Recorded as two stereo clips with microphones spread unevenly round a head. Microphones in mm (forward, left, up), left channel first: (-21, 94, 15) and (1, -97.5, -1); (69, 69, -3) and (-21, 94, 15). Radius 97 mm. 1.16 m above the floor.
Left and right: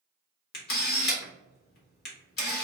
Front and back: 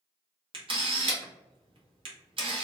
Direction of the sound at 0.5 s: 135° left.